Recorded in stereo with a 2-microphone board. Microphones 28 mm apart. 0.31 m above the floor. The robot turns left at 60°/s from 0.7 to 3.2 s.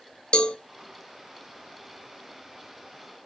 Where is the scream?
I don't hear a scream.